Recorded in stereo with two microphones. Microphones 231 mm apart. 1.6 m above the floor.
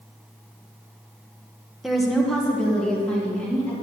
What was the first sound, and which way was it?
A woman speaking, centre (ahead or behind).